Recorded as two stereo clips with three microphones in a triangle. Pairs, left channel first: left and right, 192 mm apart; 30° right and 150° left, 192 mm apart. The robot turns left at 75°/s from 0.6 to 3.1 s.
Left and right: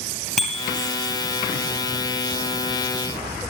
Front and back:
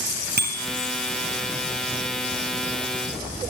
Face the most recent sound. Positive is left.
turn(degrees=-10)